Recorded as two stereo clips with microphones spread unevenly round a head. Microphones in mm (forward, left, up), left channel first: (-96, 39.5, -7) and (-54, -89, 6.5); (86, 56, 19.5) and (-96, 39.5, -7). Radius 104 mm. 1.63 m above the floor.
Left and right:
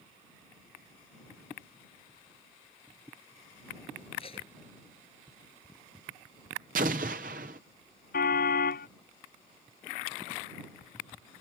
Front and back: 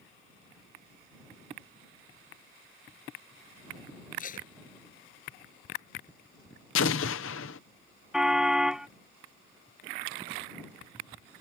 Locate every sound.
4.2 s tape being pulled: 45° left
6.8 s an explosion: 25° right
8.1 s a car horn: 95° left